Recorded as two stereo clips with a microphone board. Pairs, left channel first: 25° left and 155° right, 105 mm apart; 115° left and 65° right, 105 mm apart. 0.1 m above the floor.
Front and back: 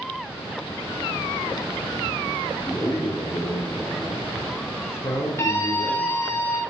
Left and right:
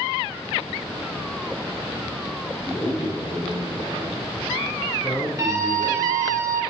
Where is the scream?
25° right, 1.5 m.